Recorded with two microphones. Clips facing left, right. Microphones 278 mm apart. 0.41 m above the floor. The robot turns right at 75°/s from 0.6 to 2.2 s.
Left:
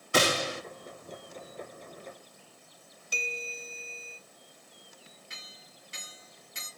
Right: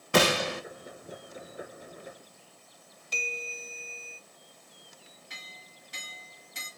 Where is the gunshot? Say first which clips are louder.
Right 3 dB; 70° right (ahead or behind), 0.8 m.